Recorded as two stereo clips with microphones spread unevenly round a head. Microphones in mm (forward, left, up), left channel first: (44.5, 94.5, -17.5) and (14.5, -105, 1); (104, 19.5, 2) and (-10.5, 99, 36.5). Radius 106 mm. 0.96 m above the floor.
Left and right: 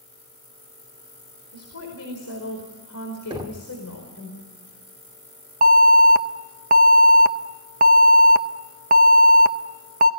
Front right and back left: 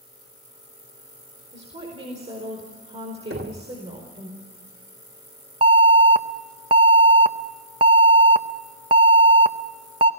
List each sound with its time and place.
1.5 s a woman speaking: 95° left, 4.5 m
3.3 s knocking: 170° right, 1.5 m
5.6 s an alarm: 150° right, 0.6 m